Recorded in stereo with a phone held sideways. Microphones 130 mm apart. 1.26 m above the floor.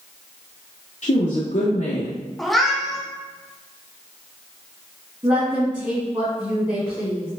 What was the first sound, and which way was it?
A woman speaking, 55° left (ahead or behind).